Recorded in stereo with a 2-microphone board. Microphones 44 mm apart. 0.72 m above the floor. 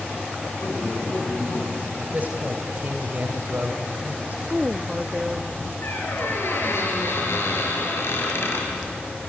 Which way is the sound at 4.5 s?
5° right (ahead or behind).